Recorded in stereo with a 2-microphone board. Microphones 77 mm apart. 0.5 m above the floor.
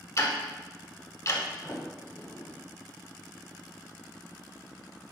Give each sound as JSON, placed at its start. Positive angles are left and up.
{"t": 0.2, "sound": "ticking", "side_deg": 45, "distance_m": 0.7}
{"t": 1.6, "sound": "a sliding door", "side_deg": 35, "distance_m": 1.4}